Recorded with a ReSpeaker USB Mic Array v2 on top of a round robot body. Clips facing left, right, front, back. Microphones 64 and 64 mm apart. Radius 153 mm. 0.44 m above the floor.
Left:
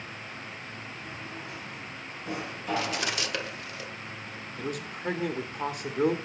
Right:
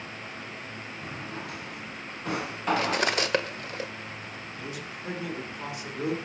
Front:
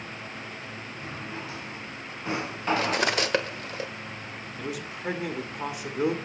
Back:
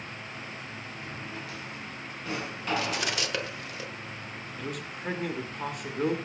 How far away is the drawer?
About 2 m.